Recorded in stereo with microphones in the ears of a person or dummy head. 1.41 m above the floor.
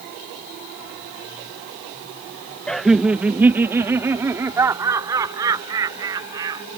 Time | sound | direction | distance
2.7 | laughter | centre (ahead or behind) | ?